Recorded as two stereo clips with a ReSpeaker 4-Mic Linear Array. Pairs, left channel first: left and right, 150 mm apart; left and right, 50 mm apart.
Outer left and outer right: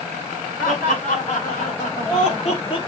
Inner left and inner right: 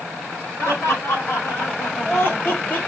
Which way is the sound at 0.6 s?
65° left (ahead or behind).